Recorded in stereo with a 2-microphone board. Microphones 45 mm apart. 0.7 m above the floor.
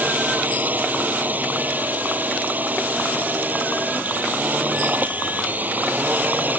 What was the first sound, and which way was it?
A drone, 40° right (ahead or behind).